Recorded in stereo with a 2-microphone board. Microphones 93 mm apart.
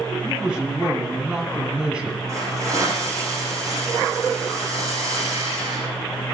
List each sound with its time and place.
0.2 s a man speaking: 10° right (ahead or behind), 1.6 m
2.3 s a hiss: 30° right (ahead or behind), 8 m